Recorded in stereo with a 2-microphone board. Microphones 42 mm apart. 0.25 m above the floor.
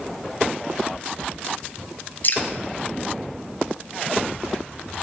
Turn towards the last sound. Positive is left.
turn(degrees=45)  # may be behind; listen again after turning